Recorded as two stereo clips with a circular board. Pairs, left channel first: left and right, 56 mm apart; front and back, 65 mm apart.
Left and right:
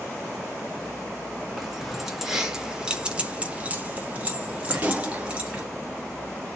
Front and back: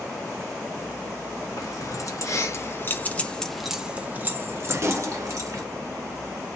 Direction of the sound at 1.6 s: Straight ahead.